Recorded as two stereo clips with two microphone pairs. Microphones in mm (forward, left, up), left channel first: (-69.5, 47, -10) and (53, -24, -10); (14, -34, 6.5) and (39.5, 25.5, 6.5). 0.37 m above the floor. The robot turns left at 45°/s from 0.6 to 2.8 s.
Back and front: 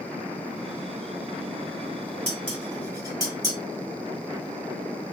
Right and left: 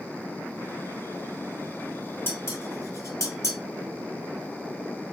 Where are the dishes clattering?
65° right, 1.6 m; by 3.6 s 90° right, 1.6 m.